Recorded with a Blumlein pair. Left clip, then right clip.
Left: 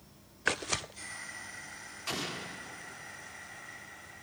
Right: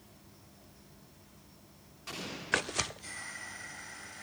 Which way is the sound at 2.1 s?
70° left.